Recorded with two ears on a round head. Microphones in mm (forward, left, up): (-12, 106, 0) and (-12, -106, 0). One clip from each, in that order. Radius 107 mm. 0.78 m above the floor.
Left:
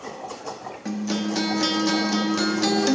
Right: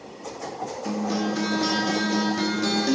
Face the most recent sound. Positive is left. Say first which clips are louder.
# even
turn(degrees=30)  # may be behind; listen again after turning